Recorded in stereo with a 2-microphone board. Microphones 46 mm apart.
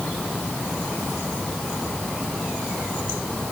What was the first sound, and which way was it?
Only background noise.